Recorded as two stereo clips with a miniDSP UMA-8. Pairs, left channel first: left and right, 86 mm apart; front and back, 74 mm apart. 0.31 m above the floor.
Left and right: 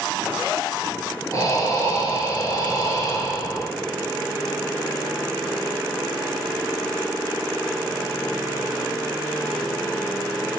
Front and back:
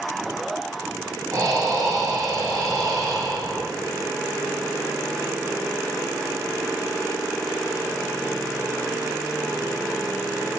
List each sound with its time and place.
1.3 s breathing: 140° left, 1.8 m